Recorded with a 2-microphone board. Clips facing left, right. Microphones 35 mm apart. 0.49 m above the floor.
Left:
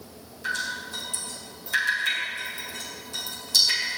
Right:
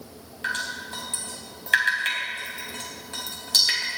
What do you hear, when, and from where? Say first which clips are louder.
0.4 s dripping: even; 50° right (ahead or behind), 4 m